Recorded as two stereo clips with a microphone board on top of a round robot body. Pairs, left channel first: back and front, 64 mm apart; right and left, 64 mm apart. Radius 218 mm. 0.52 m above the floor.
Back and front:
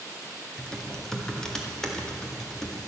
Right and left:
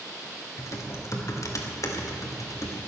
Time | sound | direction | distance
0.6 | typing on a keyboard | 100° right | 2 m